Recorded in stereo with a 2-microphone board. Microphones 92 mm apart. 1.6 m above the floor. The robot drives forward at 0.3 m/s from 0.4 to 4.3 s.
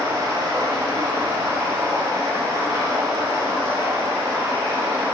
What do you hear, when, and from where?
0.0 s running water: 40° right (ahead or behind), 2.5 m; by 5.1 s 30° right (ahead or behind), 3 m